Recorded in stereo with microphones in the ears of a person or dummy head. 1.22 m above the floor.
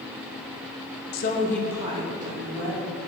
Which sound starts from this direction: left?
A woman speaking, at 1.1 s.